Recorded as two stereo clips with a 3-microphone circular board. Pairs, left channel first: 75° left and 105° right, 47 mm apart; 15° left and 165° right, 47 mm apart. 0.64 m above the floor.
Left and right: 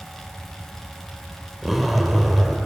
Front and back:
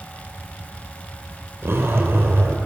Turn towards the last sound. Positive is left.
turn(degrees=165)